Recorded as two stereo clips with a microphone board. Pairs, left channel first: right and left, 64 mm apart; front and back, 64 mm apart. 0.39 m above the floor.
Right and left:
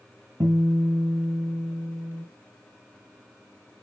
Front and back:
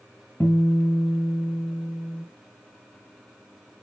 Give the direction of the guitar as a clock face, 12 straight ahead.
10 o'clock.